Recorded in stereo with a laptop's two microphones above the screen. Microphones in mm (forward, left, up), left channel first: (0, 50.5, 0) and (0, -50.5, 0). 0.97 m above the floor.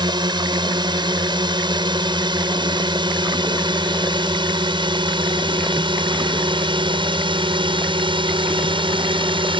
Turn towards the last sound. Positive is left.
turn(degrees=-55)  # may be behind; listen again after turning